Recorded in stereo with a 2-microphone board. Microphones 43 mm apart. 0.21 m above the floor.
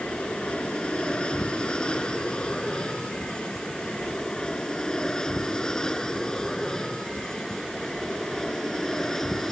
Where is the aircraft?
25° left (ahead or behind); by 9.5 s 10° left (ahead or behind).